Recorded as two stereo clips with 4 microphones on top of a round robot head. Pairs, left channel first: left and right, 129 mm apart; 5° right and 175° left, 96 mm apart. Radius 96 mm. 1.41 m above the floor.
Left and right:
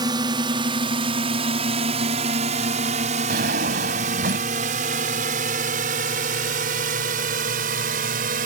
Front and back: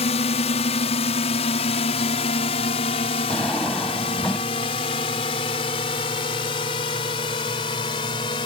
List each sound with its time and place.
0.0 s a drone: 25° right; by 8.5 s 60° right
3.3 s a drawer: 90° right